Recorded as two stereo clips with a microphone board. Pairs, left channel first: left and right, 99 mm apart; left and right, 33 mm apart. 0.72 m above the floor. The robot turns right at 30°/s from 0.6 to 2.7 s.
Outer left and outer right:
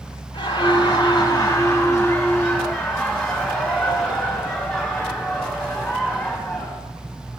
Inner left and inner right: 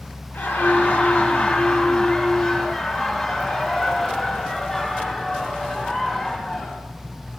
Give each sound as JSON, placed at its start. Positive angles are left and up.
{"t": 0.3, "sound": "laughter", "azimuth_deg": 120, "distance_m": 2.5}